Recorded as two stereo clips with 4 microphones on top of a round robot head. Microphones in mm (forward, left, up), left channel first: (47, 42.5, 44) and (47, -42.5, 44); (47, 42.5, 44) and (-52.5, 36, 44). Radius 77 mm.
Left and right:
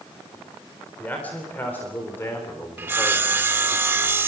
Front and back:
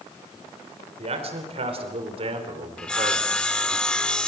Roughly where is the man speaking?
Behind.